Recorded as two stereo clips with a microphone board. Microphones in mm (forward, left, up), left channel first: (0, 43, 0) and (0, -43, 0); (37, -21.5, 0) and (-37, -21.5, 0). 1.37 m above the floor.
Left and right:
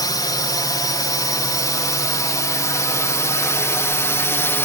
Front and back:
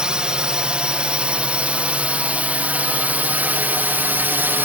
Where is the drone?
105° left; by 4.7 s 130° left.